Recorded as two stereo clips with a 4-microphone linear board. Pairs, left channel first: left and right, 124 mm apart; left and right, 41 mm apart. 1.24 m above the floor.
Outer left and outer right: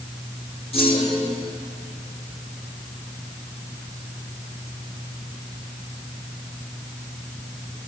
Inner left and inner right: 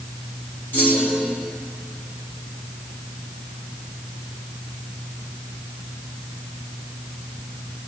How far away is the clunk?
About 3.5 m.